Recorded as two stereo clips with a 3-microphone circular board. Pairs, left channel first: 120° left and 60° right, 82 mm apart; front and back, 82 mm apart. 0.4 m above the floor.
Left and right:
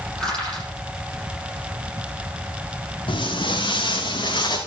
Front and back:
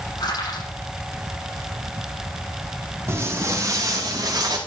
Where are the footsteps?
125° left, 3.5 m; by 4.6 s 150° left, 3.5 m.